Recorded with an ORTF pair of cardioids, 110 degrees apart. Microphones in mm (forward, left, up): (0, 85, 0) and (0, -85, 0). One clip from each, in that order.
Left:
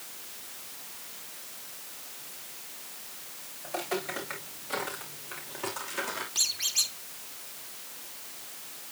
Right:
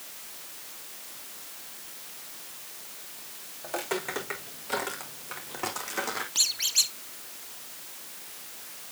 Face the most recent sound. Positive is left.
turn(degrees=-25)